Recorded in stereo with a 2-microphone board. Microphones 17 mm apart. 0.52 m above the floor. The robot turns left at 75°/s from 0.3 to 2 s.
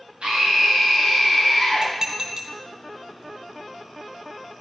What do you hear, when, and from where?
0.2 s a scream: 90° right, 3.5 m; by 1.9 s 150° left, 3.5 m
1.8 s dishes clattering: 35° right (ahead or behind), 3 m; by 2.5 s 25° right (ahead or behind), 3 m